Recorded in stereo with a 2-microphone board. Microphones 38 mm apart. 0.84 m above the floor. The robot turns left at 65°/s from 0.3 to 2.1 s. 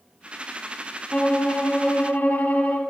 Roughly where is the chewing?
I don't hear chewing.